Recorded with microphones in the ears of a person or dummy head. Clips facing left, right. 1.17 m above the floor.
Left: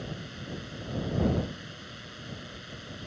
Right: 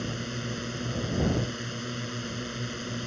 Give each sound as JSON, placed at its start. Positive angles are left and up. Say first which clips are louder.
{"t": 0.0, "sound": "a drone", "louder": "right 6 dB", "side_deg": -60}